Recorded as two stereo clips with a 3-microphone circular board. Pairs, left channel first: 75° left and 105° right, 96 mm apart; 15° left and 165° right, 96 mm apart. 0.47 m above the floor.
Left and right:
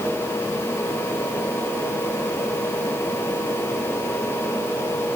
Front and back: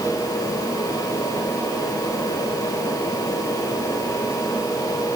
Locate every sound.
Only background noise.